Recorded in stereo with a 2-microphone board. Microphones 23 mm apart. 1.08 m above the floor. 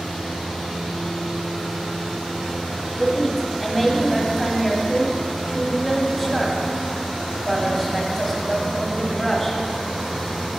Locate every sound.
3.0 s a woman speaking: 15° left (ahead or behind), 1.8 m